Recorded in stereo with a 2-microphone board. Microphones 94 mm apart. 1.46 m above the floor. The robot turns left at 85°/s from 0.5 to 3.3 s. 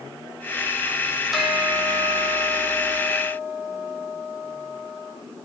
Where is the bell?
Straight ahead, 3 m; by 5.1 s 170° right, 3 m.